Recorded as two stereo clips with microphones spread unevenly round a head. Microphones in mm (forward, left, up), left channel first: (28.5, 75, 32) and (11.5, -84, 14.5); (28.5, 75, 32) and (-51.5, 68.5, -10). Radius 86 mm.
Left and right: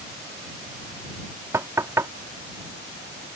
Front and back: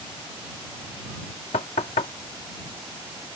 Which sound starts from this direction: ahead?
Knocking, at 1.5 s.